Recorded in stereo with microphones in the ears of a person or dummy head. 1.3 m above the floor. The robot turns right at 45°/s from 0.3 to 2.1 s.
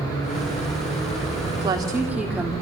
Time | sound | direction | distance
1.6 | a woman speaking | 30° right (ahead or behind) | 2.5 m